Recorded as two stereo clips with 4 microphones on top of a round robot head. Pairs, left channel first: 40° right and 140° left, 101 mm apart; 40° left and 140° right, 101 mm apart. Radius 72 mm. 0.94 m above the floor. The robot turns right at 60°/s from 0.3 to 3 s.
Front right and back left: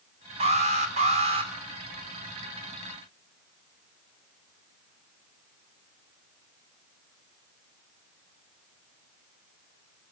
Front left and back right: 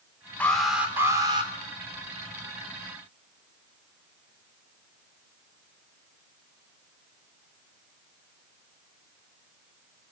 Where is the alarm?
115° left, 3.5 m; by 1.5 s straight behind, 3.5 m.